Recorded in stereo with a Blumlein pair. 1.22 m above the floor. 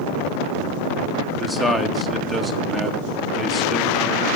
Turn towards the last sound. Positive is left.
turn(degrees=0)